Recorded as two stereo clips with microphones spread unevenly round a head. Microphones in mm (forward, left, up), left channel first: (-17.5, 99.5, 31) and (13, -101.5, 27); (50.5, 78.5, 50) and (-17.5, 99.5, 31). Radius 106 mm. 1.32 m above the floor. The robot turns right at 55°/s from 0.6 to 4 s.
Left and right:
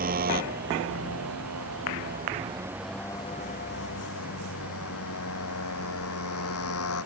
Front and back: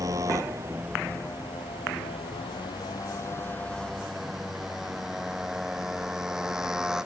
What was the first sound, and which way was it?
A motorcycle, 130° right.